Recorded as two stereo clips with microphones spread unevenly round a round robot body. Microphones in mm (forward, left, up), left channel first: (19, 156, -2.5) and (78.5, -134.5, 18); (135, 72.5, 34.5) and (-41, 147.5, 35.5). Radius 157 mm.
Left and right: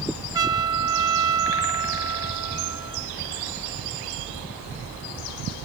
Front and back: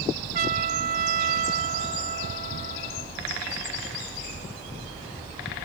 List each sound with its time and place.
0.3 s a trumpet: 160° right